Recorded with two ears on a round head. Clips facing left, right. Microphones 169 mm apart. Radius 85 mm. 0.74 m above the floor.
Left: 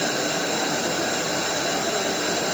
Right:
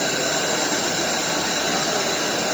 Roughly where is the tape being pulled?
No tape being pulled in this recording.